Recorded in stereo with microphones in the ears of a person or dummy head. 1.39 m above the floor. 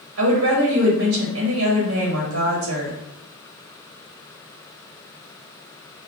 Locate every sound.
0.2 s a woman speaking: 70° right (ahead or behind), 1.6 m